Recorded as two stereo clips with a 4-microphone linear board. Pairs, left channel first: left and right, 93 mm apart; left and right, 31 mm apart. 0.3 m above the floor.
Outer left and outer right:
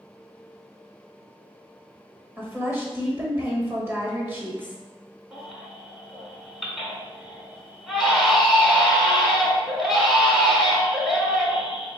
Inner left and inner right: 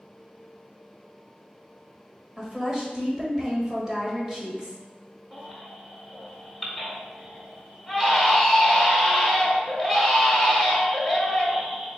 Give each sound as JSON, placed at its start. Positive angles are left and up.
{"t": 2.4, "sound": "a woman speaking", "side_deg": -20, "distance_m": 1.1}
{"t": 5.3, "sound": "a baby crying", "side_deg": 0, "distance_m": 1.1}